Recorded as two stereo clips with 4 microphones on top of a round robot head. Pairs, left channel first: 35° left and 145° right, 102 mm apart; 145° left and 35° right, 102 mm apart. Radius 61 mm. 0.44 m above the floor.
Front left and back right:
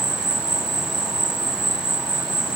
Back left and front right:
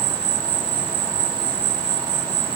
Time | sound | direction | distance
0.0 | an insect | 80° right | 2.5 m